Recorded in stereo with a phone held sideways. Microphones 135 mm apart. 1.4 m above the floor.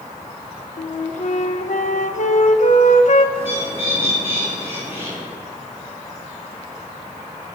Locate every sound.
0.8 s a flute: 65° left (ahead or behind), 1.3 m
3.4 s a bird: 15° right (ahead or behind), 7.5 m